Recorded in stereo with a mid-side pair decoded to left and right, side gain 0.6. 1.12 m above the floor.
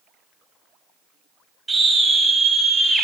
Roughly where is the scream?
Ahead.